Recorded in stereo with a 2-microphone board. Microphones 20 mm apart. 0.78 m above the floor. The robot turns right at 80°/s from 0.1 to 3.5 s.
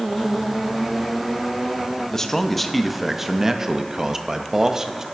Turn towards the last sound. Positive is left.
turn(degrees=-25)  # may be behind; listen again after turning